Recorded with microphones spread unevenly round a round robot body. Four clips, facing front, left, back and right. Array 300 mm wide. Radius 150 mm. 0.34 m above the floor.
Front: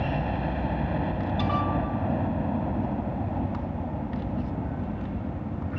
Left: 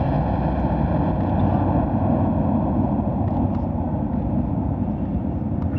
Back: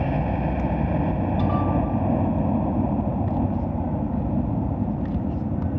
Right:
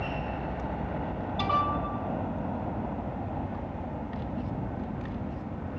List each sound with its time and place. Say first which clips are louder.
0.0 s a helicopter: left 11 dB, back 4 dB; 115° left; by 5.8 s 125° left